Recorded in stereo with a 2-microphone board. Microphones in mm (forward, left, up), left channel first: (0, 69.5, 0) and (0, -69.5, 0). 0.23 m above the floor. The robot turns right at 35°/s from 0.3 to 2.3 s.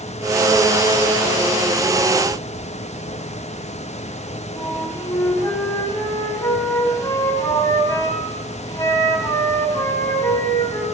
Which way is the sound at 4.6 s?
25° left (ahead or behind).